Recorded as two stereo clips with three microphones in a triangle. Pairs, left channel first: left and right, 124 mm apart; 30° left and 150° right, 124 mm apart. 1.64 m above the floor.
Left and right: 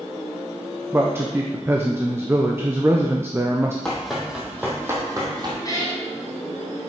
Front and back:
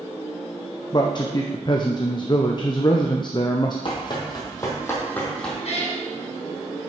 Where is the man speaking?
20° right, 0.7 m.